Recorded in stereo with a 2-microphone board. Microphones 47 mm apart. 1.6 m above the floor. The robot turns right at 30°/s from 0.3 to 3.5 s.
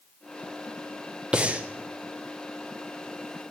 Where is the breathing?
20° right (ahead or behind), 0.7 m; by 1.6 s 30° right (ahead or behind), 0.7 m.